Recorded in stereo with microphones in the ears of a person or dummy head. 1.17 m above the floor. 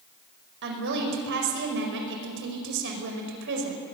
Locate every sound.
0.6 s a woman speaking: 65° right (ahead or behind), 5 m